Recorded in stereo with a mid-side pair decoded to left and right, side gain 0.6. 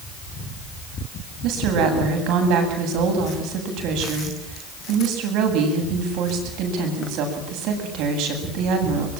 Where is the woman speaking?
70° right, 8.5 m.